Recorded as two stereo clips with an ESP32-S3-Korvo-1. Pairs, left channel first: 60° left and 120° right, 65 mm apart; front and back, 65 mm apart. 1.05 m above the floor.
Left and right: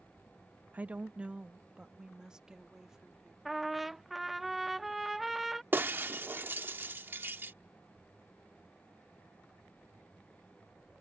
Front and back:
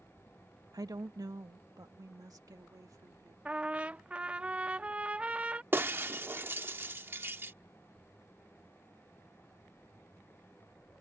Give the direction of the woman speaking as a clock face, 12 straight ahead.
6 o'clock.